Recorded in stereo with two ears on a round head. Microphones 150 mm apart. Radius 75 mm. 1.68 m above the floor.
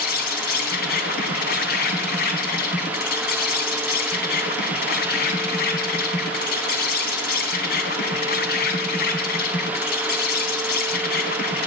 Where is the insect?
60° left (ahead or behind), 2.5 m.